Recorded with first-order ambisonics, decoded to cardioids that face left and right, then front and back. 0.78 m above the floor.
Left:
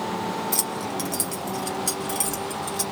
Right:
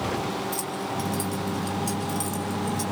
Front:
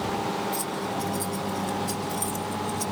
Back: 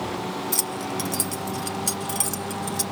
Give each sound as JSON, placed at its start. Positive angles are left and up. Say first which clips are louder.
{"t": 0.5, "sound": "keys jangling", "louder": "left 2 dB, back 1 dB", "azimuth_deg": 150, "distance_m": 1.9}